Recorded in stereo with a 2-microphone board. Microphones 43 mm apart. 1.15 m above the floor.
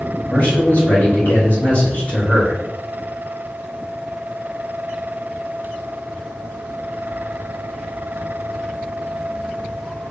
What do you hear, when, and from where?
0.3 s a man speaking: 45° left (ahead or behind), 1.9 m